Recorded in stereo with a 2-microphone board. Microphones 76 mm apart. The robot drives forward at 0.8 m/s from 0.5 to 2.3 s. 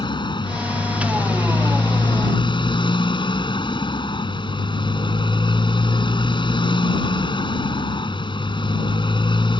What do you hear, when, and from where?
0.0 s a motorcycle: 75° left (ahead or behind); by 9.6 s 85° left